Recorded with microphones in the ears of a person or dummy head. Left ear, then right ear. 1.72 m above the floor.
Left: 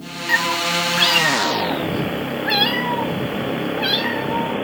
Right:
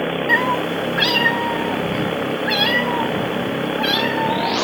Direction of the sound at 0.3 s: 15° left (ahead or behind).